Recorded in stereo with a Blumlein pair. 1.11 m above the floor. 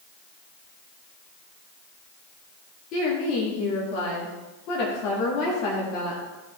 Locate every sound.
2.9 s a woman speaking: 40° left, 2 m